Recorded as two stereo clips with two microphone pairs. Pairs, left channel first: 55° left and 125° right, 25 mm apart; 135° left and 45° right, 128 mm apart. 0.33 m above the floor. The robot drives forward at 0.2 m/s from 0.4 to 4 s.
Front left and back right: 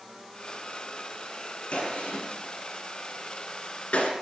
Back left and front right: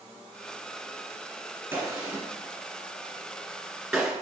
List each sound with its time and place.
1.7 s a gunshot: 30° left, 1.5 m; by 4.1 s 45° left, 1.1 m